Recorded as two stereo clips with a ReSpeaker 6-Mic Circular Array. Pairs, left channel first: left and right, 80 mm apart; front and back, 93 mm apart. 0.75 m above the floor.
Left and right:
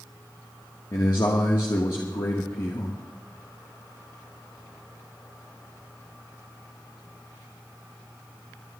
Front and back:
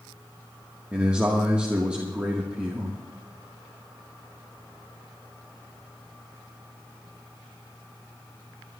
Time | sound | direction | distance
0.9 | a man speaking | 105° left | 1.4 m